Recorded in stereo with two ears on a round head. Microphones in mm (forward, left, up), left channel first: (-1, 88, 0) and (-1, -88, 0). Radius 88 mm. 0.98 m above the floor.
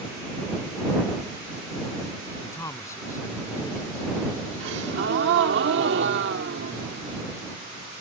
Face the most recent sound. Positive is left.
turn(degrees=-65)  # may be behind; listen again after turning